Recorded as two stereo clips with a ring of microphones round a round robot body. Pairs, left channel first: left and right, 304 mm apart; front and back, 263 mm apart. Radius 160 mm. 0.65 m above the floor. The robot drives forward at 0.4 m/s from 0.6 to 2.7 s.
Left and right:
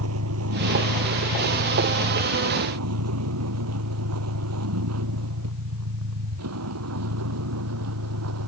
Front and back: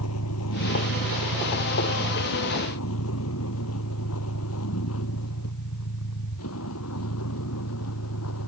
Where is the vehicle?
45° right.